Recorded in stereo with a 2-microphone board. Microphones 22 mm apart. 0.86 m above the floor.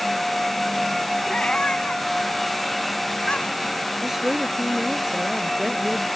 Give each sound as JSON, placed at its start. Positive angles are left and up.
{"t": 1.3, "sound": "a cat meowing", "side_deg": 55}
{"t": 4.0, "sound": "a woman speaking", "side_deg": -15}